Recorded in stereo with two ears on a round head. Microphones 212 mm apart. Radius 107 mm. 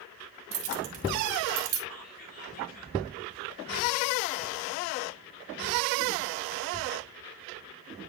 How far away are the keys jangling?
About 1.6 m.